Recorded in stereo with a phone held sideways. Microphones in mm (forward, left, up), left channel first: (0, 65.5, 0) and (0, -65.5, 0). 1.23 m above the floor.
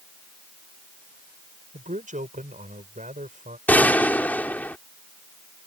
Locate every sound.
1.7 s a man speaking: 80° right
3.7 s a gunshot: 10° left (ahead or behind)